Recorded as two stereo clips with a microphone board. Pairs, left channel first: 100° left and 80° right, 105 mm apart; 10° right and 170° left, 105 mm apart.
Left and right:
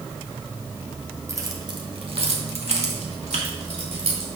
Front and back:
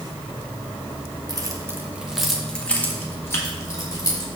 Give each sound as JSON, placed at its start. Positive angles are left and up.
{"t": 1.3, "sound": "keys jangling", "azimuth_deg": -140, "distance_m": 1.1}